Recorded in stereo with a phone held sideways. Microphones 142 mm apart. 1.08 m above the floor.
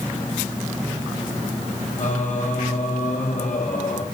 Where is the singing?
60° left (ahead or behind), 2.5 m.